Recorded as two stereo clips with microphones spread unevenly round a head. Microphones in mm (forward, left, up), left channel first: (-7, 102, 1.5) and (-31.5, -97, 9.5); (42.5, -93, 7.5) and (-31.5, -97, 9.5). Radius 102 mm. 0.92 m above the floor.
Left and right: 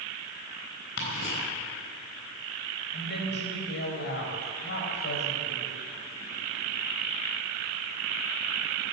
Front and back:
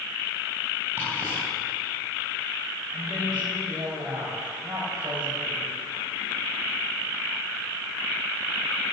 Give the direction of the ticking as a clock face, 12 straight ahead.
8 o'clock.